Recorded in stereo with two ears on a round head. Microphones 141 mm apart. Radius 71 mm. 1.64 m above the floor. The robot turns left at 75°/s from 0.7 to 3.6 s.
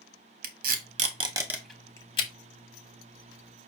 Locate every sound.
0.4 s tape being pulled: 60° right (ahead or behind), 0.8 m; by 2.3 s 40° left (ahead or behind), 0.8 m